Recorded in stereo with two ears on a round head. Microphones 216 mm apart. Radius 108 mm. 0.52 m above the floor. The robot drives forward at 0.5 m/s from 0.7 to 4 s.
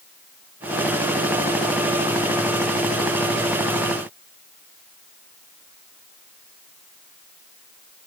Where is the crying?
No crying in this recording.